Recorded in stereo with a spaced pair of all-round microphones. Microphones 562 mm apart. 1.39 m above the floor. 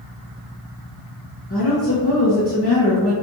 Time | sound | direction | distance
1.5 | a woman speaking | 25° left (ahead or behind) | 0.7 m